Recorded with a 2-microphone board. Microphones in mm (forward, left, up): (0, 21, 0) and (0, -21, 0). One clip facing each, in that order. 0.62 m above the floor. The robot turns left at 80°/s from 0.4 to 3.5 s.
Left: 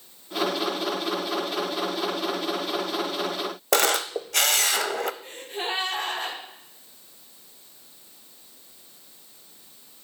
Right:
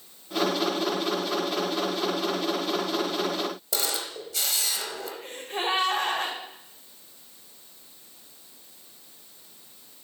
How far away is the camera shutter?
About 0.6 m.